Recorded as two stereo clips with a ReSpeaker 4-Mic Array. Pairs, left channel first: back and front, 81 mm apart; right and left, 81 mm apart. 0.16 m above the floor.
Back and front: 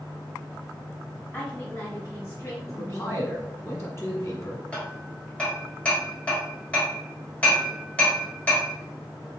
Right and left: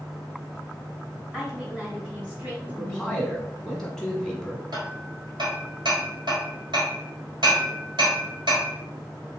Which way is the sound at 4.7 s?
105° left.